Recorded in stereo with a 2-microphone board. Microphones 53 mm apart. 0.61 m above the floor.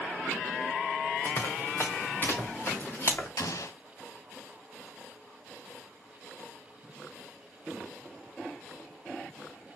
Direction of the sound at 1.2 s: 50° left (ahead or behind).